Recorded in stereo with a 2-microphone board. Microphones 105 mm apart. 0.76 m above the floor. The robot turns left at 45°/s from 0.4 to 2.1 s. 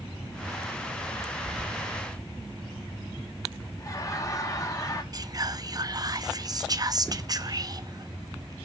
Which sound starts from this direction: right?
Whispering, at 5.1 s.